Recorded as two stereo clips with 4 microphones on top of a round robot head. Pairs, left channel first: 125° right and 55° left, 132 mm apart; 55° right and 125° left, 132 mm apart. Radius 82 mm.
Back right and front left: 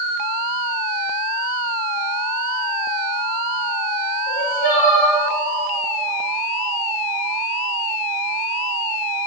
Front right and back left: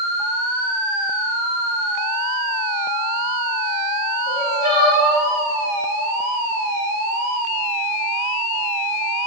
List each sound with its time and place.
4.3 s crying: 110° right, 3 m